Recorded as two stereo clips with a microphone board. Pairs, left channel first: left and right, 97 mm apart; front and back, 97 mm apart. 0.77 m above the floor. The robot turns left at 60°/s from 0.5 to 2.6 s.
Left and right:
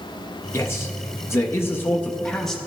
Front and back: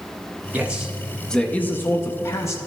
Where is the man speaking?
120° left, 0.5 m; by 2.6 s straight ahead, 0.5 m.